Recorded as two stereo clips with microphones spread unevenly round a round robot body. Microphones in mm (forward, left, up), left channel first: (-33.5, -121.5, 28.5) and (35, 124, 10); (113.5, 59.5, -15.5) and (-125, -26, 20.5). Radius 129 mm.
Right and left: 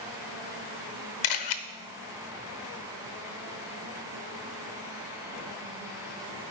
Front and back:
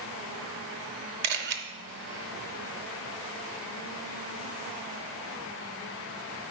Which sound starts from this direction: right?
A camera shutter, at 1.2 s.